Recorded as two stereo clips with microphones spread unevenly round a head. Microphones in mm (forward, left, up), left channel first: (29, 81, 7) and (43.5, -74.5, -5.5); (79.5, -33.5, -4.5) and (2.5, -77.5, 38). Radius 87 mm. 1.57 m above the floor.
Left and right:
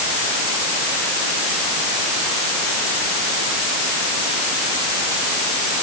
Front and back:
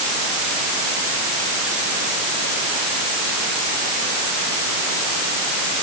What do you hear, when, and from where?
Only background noise.